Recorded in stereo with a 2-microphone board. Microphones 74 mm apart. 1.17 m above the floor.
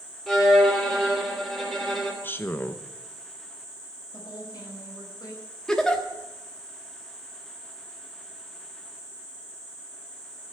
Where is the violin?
5° left (ahead or behind), 3.5 m.